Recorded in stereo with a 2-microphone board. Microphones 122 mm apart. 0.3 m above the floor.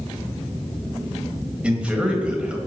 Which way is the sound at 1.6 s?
10° right (ahead or behind).